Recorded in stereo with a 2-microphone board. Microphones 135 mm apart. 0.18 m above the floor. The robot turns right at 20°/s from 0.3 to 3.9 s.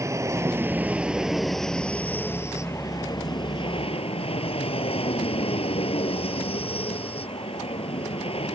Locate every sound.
0.0 s an aircraft: 25° right; by 8.6 s 50° left